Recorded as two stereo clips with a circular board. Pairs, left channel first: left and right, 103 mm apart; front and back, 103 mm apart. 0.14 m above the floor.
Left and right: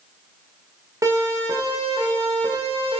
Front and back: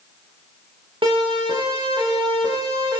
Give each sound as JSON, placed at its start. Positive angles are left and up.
{"t": 1.0, "sound": "a siren", "azimuth_deg": -150, "distance_m": 9.5}